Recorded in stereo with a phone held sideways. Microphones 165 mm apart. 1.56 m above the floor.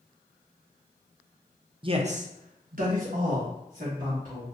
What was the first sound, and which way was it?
A man speaking, 30° right (ahead or behind).